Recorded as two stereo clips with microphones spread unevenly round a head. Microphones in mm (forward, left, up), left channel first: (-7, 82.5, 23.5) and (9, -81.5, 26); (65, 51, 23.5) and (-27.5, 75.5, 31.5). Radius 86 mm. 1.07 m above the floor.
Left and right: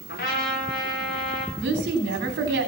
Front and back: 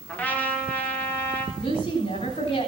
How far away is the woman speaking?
About 3.5 m.